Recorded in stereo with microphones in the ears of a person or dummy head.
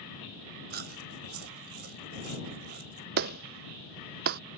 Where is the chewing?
60° right (ahead or behind).